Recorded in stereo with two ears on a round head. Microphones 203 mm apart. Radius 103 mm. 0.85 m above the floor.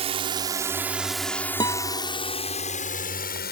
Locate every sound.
0.0 s a drone: 25° right (ahead or behind); by 3.5 s 40° left (ahead or behind)
1.6 s a guitar: 20° left (ahead or behind)